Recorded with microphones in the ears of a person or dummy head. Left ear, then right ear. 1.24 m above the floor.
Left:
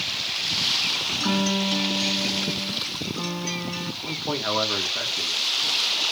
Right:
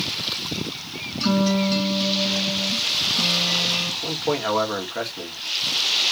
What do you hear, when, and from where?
1.2 s a guitar: 25° left (ahead or behind), 4 m
4.0 s a man speaking: 15° right (ahead or behind), 1.4 m